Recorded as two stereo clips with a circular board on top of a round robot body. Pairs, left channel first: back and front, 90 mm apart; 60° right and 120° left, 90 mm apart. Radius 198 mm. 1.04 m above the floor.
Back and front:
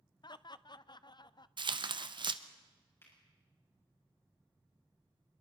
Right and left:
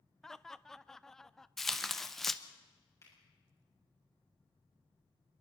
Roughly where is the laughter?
Behind right.